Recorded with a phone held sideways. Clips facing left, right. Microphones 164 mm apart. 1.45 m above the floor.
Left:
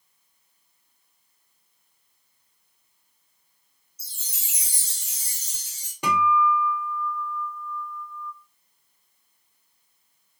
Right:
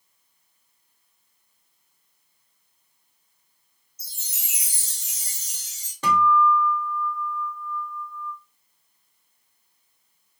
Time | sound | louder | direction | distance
4.0 | a chime | even | 30° left (ahead or behind) | 1.6 m
6.0 | a guitar | right 2 dB | 10° left (ahead or behind) | 1.1 m